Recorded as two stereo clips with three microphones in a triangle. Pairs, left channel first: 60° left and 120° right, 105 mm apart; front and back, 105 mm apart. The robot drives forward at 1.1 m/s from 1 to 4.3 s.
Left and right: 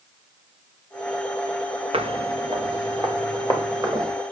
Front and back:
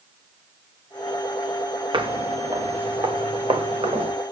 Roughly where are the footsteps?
Behind right.